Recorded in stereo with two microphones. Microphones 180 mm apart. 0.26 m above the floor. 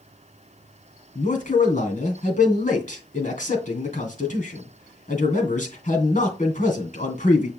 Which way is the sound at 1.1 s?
45° left (ahead or behind).